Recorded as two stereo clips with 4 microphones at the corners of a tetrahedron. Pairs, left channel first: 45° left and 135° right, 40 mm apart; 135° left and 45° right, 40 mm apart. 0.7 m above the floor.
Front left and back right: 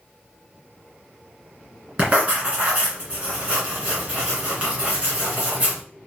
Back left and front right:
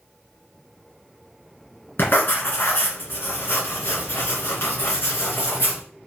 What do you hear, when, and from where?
2.0 s writing: 170° left, 2.5 m